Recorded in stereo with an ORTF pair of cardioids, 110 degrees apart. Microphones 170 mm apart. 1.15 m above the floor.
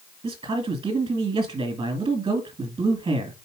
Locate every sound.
0.2 s a man speaking: 30° right, 2 m